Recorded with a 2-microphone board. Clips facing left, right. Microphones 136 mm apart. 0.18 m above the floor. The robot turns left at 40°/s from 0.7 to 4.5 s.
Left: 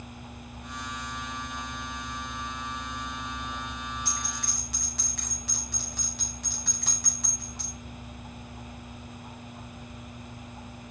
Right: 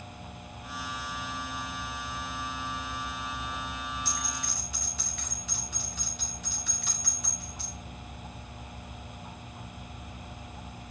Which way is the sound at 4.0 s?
55° left (ahead or behind).